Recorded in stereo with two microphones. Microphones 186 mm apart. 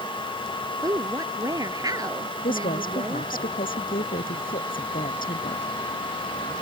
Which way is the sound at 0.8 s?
20° right (ahead or behind).